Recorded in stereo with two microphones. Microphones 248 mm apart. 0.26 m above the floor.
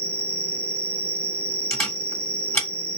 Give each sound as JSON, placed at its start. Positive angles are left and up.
{"t": 0.0, "sound": "an insect", "side_deg": -60, "distance_m": 1.0}
{"t": 1.7, "sound": "a camera shutter", "side_deg": 10, "distance_m": 1.7}